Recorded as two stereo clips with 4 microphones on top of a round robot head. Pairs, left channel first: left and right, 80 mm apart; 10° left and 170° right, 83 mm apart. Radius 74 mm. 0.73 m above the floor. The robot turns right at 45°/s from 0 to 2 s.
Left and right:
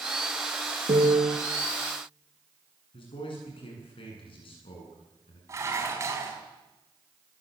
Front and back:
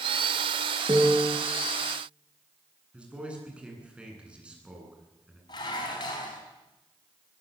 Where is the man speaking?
110° left, 9.5 m.